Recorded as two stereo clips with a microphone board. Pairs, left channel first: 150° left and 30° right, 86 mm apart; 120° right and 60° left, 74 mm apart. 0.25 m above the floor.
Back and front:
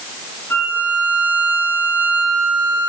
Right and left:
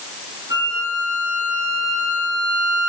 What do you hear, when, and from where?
0.5 s a violin: 85° left, 8 m